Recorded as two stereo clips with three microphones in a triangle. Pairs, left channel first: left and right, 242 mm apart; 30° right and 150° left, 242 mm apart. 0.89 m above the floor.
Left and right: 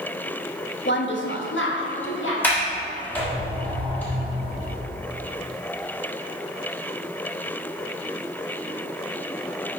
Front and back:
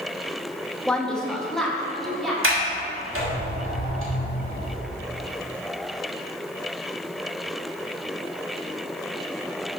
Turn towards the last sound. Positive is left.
turn(degrees=170)